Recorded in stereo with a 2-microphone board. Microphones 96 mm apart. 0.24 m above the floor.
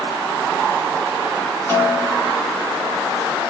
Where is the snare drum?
25° left (ahead or behind), 1.8 m.